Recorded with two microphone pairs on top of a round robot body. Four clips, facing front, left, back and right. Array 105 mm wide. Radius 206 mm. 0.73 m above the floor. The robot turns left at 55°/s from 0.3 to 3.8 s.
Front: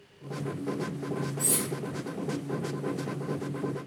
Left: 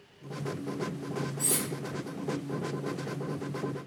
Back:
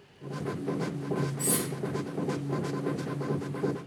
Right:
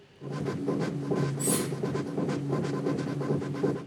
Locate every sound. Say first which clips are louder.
1.4 s cutlery clinking: right 5 dB, back 2 dB; 135° left, 0.7 m; by 1.6 s 120° left, 0.7 m